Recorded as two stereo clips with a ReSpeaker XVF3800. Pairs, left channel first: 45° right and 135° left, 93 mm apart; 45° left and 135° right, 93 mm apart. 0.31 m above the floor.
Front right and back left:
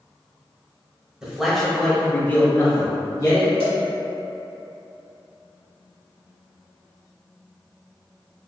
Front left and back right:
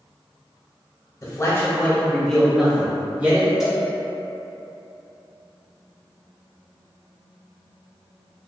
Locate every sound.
1.2 s a man speaking: 60° left, 1.0 m; by 3.5 s 75° right, 1.2 m
3.6 s a cowbell: 135° left, 1.2 m